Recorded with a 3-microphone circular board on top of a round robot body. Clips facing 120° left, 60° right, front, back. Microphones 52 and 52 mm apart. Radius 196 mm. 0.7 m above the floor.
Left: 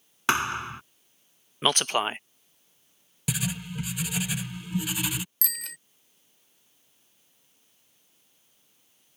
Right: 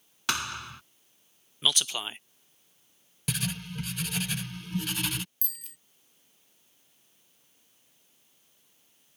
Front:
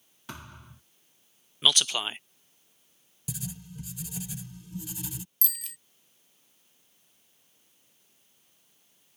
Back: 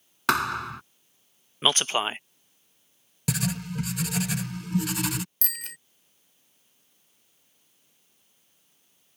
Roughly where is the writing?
Behind.